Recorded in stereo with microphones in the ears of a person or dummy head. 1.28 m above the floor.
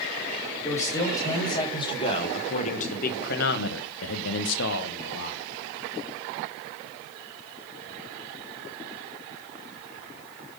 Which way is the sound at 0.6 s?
20° left (ahead or behind).